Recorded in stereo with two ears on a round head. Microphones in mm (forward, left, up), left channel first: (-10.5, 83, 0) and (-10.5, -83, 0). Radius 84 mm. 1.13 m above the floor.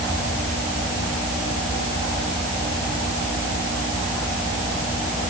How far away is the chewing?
No chewing in this recording.